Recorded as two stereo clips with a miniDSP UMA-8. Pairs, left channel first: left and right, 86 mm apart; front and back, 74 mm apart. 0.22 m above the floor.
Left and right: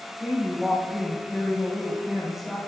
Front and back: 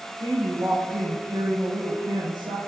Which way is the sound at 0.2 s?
175° right.